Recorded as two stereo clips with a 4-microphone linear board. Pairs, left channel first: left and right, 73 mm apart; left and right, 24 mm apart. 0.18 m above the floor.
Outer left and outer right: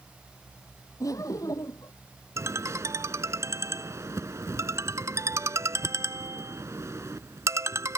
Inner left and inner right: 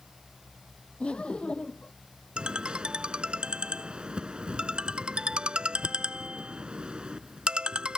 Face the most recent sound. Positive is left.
turn(degrees=-40)  # may be behind; listen again after turning